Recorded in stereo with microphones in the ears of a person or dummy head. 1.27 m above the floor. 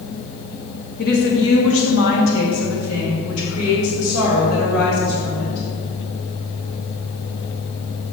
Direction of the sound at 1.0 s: 50° left (ahead or behind).